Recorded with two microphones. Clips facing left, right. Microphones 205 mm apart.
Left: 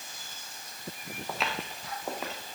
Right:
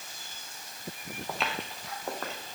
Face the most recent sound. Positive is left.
turn(degrees=10)  # may be behind; listen again after turning